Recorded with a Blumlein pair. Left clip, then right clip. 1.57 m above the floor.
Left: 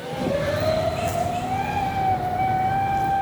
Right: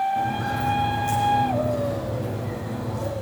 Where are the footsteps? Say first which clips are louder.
Left 1 dB; 10° left, 5.5 m.